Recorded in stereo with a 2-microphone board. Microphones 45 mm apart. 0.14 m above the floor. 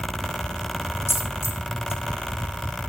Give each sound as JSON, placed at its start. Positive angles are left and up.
{"t": 1.1, "sound": "a dropped coin", "side_deg": 80, "distance_m": 3.5}